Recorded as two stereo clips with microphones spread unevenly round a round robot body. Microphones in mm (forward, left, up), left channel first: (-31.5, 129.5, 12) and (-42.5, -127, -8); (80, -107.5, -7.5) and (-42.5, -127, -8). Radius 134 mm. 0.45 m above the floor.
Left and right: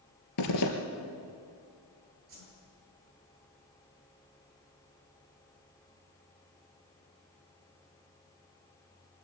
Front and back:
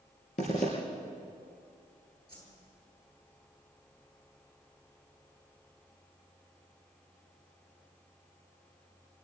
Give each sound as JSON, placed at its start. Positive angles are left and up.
{"t": 0.4, "sound": "a zipper", "azimuth_deg": 65, "distance_m": 3.0}
{"t": 2.3, "sound": "a whoosh", "azimuth_deg": -50, "distance_m": 10.0}